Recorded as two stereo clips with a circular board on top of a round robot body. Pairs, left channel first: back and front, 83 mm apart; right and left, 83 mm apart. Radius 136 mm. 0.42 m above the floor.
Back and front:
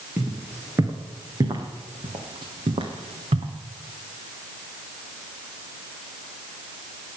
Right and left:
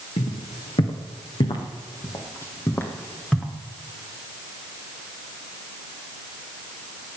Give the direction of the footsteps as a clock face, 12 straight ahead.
2 o'clock.